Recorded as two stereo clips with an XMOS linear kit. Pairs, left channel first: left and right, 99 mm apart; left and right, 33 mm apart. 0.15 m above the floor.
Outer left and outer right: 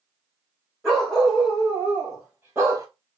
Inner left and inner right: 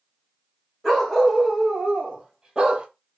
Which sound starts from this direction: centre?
A dog barking, at 0.8 s.